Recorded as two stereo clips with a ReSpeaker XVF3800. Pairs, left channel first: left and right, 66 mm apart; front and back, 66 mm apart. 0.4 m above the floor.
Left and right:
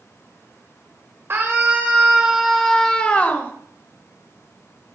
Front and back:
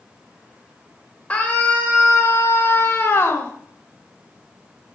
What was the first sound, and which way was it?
A scream, 60° right.